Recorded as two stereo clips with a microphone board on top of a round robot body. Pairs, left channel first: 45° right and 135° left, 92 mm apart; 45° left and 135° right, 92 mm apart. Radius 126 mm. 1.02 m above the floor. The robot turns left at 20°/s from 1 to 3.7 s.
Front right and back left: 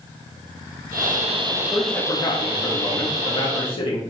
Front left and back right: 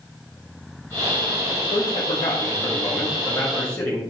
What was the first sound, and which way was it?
A man speaking, 15° left.